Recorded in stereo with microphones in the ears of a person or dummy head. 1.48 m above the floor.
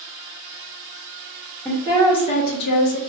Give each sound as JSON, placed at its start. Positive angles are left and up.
{"t": 1.6, "sound": "a woman speaking", "side_deg": 5, "distance_m": 1.2}